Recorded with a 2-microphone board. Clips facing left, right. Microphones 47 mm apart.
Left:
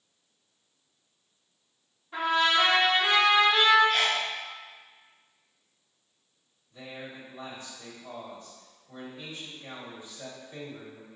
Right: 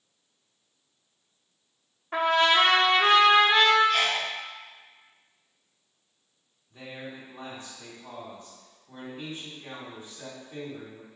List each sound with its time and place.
2.1 s a trumpet: 65° right (ahead or behind), 0.6 m
3.9 s a sneeze: 5° left (ahead or behind), 1.4 m
6.7 s a man speaking: 45° right (ahead or behind), 2.0 m